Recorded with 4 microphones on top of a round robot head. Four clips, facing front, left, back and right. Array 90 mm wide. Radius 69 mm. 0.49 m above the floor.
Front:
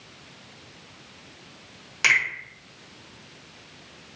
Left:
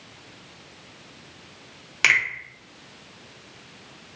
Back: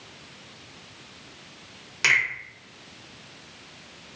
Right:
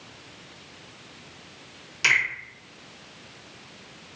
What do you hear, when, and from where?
2.0 s a finger snap: 85° left, 1.1 m